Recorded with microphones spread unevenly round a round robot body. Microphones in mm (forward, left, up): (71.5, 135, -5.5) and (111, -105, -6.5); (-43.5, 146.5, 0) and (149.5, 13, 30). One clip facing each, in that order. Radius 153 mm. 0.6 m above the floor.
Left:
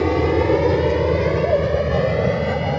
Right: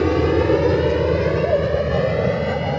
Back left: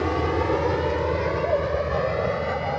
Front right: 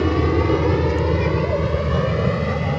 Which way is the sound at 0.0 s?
10° right.